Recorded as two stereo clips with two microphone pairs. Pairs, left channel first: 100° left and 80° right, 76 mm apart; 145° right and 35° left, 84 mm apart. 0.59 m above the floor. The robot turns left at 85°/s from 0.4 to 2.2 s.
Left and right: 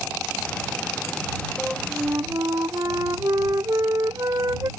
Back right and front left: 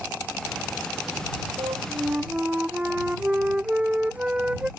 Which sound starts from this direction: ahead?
A flute, at 1.6 s.